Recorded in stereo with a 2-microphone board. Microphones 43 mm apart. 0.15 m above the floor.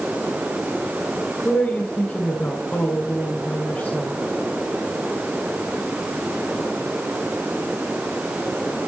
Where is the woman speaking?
35° left (ahead or behind), 2.0 m.